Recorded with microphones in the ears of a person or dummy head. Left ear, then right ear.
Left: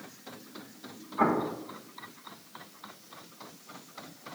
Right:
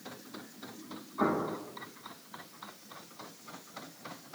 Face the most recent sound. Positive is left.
turn(degrees=35)  # may be behind; listen again after turning